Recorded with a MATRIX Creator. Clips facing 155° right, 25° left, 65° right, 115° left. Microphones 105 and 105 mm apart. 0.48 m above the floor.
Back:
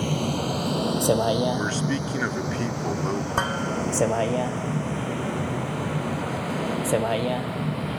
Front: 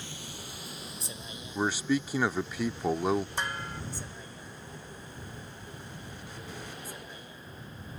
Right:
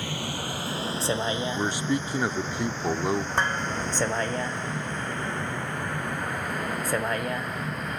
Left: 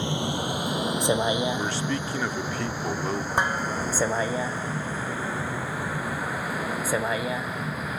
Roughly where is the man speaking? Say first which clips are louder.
Back 3 dB, right 1 dB; ahead right.